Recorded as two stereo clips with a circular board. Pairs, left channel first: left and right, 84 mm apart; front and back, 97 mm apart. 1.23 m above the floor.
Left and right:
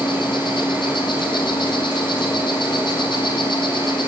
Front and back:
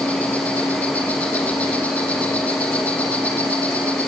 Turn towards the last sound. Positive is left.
turn(degrees=75)